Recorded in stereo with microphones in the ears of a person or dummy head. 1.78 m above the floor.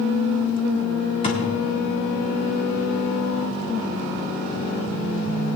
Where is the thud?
30° left (ahead or behind), 1.7 m.